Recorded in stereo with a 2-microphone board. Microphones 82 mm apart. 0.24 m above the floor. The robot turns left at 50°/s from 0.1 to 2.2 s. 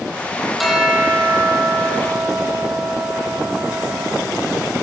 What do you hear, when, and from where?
0.6 s a bell: straight ahead, 9 m; by 4.2 s 80° right, 9 m